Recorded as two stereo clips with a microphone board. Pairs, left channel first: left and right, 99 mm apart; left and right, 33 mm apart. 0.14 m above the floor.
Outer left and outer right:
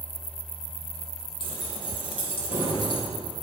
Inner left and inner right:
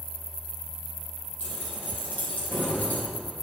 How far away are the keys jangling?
About 3.5 m.